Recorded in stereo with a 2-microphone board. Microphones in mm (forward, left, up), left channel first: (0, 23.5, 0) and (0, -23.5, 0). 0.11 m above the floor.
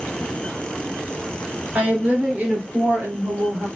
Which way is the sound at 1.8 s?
30° right (ahead or behind).